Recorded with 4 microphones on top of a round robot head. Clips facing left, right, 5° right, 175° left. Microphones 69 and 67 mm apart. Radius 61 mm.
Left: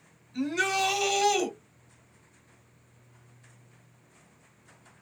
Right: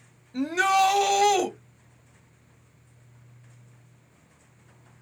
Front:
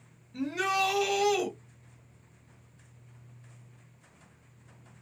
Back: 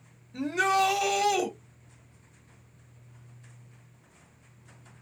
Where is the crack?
No crack in this recording.